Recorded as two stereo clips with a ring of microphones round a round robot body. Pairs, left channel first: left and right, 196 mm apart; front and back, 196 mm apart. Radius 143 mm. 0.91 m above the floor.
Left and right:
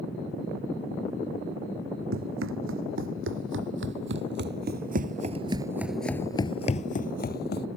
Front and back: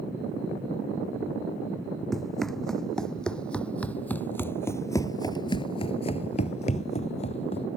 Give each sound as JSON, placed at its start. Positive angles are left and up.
{"t": 2.1, "sound": "running footsteps", "azimuth_deg": -90}